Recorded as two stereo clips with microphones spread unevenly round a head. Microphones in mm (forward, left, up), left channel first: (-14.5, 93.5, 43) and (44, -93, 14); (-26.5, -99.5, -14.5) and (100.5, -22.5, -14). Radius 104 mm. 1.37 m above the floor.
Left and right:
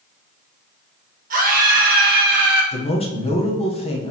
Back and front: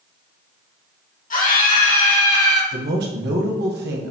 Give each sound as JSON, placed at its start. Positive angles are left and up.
{"t": 1.3, "sound": "a scream", "azimuth_deg": -120, "distance_m": 2.5}
{"t": 2.7, "sound": "a man speaking", "azimuth_deg": 45, "distance_m": 1.4}